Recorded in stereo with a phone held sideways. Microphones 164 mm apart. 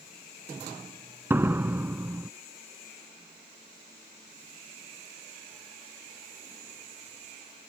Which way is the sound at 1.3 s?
10° right (ahead or behind).